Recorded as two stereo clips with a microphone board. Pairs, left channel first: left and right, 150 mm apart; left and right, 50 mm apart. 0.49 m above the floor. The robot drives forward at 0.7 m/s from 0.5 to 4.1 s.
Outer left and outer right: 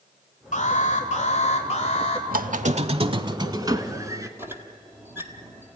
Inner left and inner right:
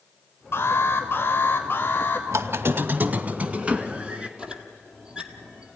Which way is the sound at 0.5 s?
55° left (ahead or behind).